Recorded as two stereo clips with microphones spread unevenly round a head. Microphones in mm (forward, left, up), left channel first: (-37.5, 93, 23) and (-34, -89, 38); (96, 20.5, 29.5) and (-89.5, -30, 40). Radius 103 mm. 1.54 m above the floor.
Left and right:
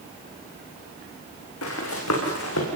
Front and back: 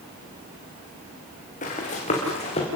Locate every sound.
1.6 s running footsteps: 70° left, 6.5 m; by 2.7 s 75° left, 6.5 m